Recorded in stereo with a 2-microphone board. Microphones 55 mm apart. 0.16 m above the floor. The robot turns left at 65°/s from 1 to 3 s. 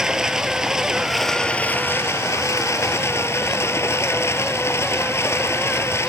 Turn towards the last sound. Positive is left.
turn(degrees=60)